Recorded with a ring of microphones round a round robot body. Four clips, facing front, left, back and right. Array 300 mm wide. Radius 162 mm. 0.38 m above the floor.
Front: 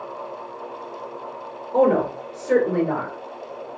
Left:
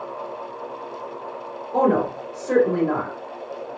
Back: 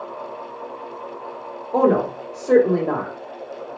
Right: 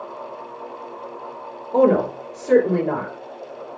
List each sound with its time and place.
1.7 s a woman speaking: 155° right, 2.5 m